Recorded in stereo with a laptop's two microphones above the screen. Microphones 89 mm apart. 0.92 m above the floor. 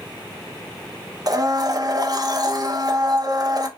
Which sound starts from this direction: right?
A blender, at 1.3 s.